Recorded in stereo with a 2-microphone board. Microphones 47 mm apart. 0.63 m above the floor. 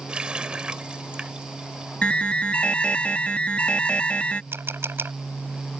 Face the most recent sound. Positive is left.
turn(degrees=-55)  # may be behind; listen again after turning